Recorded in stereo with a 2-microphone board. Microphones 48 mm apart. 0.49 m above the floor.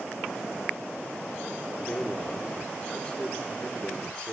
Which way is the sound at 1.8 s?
20° left (ahead or behind).